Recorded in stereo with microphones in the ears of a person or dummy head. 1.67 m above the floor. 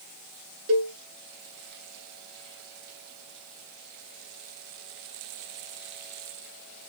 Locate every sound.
0.7 s a cowbell: 75° right (ahead or behind), 0.8 m